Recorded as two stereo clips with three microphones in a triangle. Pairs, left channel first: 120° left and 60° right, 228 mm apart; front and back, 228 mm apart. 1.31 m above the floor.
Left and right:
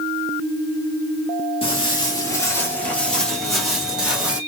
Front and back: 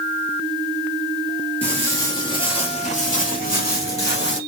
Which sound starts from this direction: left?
Footsteps, at 1.6 s.